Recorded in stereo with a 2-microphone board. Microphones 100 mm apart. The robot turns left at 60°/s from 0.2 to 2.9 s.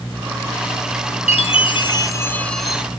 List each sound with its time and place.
1.3 s a chime: 85° left, 1.0 m; by 2.8 s 10° right, 1.0 m